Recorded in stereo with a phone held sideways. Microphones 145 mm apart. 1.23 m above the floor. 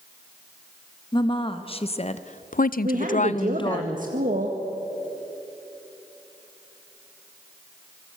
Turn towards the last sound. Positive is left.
turn(degrees=-65)  # may be behind; listen again after turning